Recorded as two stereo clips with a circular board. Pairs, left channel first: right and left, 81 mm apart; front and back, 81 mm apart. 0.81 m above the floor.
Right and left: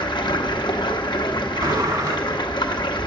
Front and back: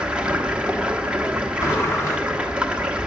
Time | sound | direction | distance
0.0 | running water | 105° right | 1.1 m
1.6 | a sliding door | 50° left | 1.6 m